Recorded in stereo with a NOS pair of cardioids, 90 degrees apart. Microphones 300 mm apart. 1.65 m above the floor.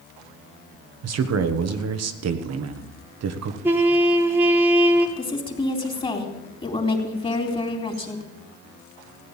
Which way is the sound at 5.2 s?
20° left.